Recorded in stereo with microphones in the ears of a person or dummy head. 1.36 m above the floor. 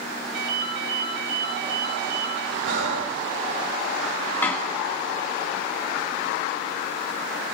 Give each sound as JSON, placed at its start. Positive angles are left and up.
{"t": 0.3, "sound": "a ringtone", "side_deg": -75, "distance_m": 1.2}
{"t": 2.6, "sound": "breathing", "side_deg": -70, "distance_m": 2.0}
{"t": 4.4, "sound": "a door slam", "side_deg": 10, "distance_m": 1.4}